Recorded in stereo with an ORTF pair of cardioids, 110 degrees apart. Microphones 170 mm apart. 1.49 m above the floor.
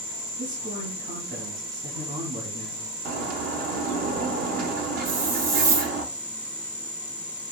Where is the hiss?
60° right, 2 m.